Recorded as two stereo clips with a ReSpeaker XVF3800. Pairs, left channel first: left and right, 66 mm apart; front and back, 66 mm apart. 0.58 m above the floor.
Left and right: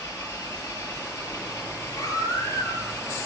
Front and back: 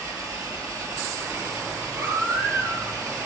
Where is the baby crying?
130° left, 10 m.